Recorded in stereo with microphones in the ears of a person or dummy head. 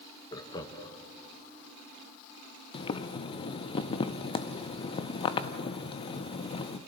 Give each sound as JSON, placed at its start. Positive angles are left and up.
{"t": 0.3, "sound": "laughter", "side_deg": 25, "distance_m": 1.7}
{"t": 2.7, "sound": "boiling", "side_deg": 25, "distance_m": 0.8}